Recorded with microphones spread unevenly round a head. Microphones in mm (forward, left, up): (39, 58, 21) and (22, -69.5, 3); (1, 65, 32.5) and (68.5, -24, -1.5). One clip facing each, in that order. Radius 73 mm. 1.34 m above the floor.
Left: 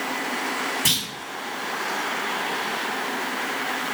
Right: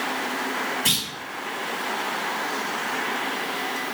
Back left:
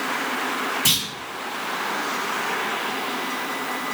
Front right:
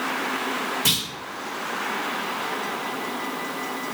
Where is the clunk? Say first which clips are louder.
Even, even; 35° left, 4 m.